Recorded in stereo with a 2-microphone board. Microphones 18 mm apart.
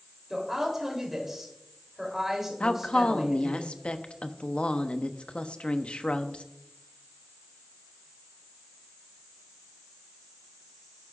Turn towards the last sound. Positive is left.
turn(degrees=65)  # may be behind; listen again after turning